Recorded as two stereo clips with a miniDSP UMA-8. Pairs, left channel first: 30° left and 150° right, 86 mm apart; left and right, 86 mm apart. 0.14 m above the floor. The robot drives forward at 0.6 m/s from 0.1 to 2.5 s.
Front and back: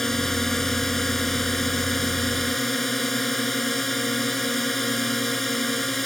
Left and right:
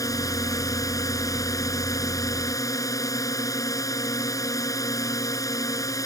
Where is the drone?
115° left.